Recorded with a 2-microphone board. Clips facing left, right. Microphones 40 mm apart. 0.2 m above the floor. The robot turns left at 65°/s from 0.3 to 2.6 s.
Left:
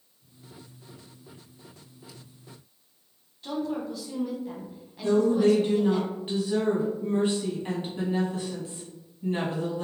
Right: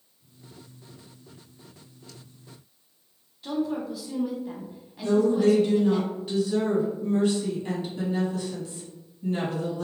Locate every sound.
3.4 s a woman speaking: 5° right (ahead or behind), 1.0 m
5.0 s a woman speaking: 30° left (ahead or behind), 1.2 m